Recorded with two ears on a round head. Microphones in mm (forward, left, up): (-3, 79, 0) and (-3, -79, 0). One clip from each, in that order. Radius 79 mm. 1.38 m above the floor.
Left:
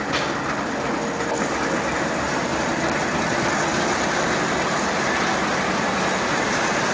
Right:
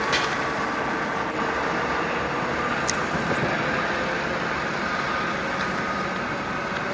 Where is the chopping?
55° right (ahead or behind), 2 m.